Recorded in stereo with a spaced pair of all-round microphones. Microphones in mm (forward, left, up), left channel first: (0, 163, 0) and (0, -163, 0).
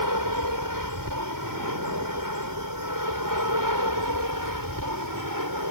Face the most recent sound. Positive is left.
turn(degrees=-75)  # may be behind; listen again after turning